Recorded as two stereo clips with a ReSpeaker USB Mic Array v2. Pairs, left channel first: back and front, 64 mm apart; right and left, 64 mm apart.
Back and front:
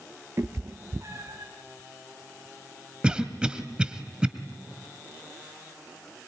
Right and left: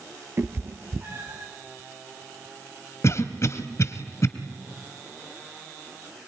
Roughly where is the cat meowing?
Ahead left.